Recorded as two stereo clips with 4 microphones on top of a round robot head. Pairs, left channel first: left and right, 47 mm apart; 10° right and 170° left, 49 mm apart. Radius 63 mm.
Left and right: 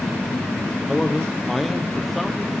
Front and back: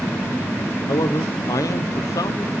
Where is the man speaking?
5° left, 0.9 m.